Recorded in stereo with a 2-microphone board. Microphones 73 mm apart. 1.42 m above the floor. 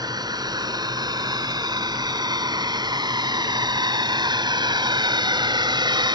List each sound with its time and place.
0.0 s a drone: 65° right (ahead or behind); by 6.2 s 85° right